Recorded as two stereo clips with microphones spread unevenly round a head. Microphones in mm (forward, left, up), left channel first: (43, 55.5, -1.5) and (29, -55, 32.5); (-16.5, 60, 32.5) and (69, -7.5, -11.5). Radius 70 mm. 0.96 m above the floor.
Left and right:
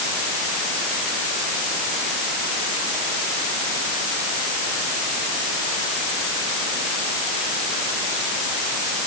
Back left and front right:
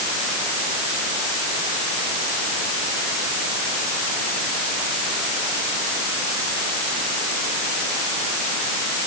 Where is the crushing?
I don't hear crushing.